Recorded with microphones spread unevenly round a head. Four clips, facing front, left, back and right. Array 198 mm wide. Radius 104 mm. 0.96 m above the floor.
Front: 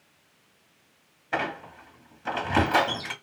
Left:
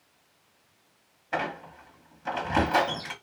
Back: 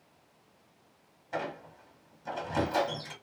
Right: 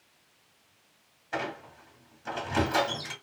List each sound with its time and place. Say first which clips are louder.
1.3 s a squeak: left 3 dB, front 6 dB; 20° left, 1.2 m